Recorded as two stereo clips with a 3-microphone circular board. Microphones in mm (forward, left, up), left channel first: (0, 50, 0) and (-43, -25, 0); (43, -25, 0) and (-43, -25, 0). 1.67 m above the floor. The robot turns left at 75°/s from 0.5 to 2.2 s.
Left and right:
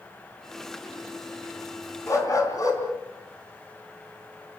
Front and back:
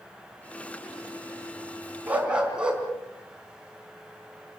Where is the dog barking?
110° left, 4 m; by 2.8 s 100° left, 4 m.